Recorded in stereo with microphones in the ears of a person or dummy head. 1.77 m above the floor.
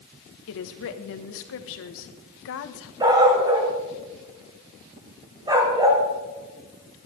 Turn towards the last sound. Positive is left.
turn(degrees=-20)  # may be behind; listen again after turning